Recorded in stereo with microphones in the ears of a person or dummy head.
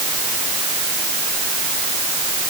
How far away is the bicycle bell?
No bicycle bell in this recording.